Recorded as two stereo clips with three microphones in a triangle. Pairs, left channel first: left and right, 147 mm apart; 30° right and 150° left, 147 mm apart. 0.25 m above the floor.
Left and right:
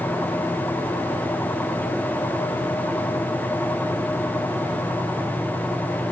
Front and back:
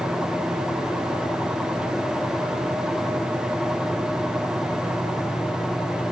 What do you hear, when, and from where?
Only background noise.